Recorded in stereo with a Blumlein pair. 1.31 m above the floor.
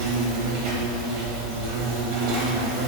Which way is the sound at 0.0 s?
45° right.